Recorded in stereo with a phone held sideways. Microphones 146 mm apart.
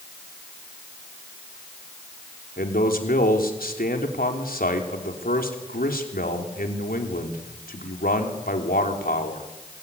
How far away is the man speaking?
About 3.5 m.